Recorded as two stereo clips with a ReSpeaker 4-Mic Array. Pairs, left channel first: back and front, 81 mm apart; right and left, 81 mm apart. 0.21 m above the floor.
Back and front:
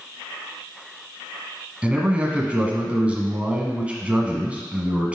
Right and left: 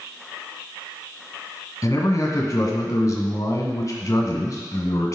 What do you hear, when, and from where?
1.8 s a man speaking: 70° right, 1.4 m